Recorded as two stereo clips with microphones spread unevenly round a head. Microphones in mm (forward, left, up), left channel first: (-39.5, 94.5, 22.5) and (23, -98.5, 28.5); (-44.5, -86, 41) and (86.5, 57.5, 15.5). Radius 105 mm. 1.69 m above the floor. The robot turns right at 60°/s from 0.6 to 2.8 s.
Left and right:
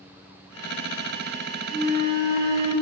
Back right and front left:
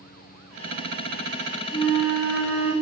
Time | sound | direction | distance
1.7 | a flute | 155° left | 1.1 m